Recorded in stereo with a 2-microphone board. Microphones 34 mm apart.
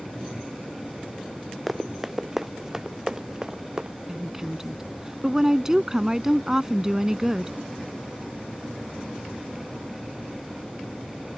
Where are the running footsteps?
Centre (ahead or behind); by 4.0 s 20° right (ahead or behind).